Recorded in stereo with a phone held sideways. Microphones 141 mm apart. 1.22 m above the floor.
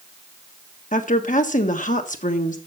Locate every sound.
0.9 s a woman speaking: 65° left (ahead or behind), 1.3 m